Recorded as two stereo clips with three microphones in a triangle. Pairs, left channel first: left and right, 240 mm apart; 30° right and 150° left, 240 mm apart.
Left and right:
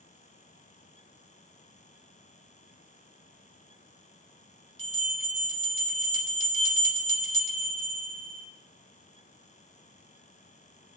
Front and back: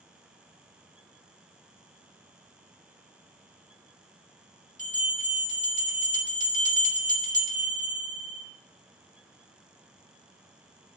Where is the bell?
25° left, 2.0 m.